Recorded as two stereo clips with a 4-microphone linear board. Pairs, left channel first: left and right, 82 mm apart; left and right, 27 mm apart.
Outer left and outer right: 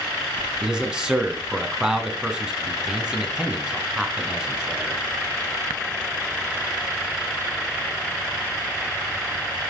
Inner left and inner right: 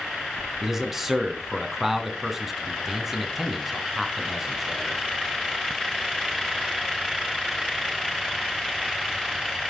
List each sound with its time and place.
0.6 s a man speaking: 10° right (ahead or behind), 1.9 m